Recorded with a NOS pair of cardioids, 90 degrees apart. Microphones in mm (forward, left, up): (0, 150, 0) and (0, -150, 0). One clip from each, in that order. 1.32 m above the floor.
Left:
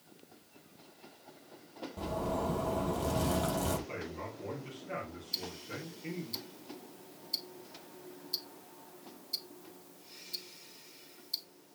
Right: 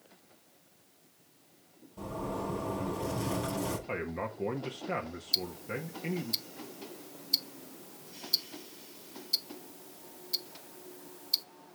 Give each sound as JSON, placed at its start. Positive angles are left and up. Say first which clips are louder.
{"t": 2.0, "sound": "a zipper", "louder": "left 2 dB", "azimuth_deg": 25, "distance_m": 6.0}
{"t": 3.9, "sound": "a man speaking", "louder": "right 5 dB", "azimuth_deg": -60, "distance_m": 1.6}
{"t": 5.3, "sound": "ticking", "louder": "right 7 dB", "azimuth_deg": -35, "distance_m": 0.6}